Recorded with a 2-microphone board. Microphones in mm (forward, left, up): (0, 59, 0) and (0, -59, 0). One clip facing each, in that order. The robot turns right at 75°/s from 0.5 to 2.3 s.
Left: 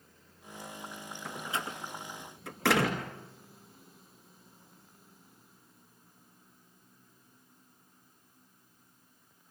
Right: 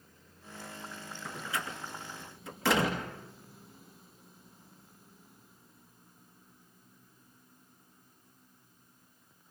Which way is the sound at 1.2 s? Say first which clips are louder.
Left 1 dB; centre (ahead or behind).